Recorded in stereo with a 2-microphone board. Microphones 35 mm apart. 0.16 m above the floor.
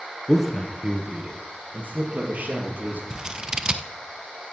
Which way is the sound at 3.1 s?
25° right (ahead or behind).